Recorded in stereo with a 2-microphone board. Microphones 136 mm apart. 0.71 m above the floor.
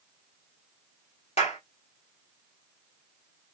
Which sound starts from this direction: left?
A clap, at 1.4 s.